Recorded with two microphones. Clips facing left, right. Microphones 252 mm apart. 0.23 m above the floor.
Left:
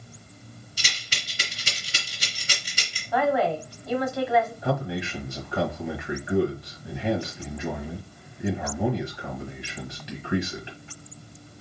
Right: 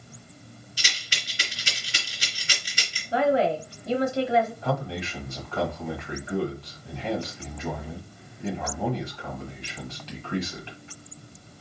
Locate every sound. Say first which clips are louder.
0.8 s a rattle: left 1 dB; 45° left (ahead or behind), 2.5 m
3.1 s a woman speaking: right 1 dB; 30° right (ahead or behind), 1.1 m
4.6 s a man speaking: left 2 dB; 15° left (ahead or behind), 1.3 m